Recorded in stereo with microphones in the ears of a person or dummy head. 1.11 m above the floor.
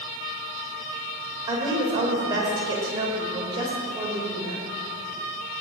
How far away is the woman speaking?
About 5 m.